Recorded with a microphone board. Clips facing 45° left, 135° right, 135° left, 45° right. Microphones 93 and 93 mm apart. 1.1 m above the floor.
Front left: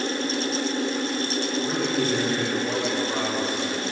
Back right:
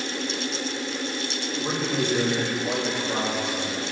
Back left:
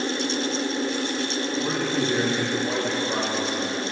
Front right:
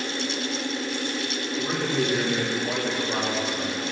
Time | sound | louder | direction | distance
1.6 | a man speaking | even, even | straight behind | 5.5 m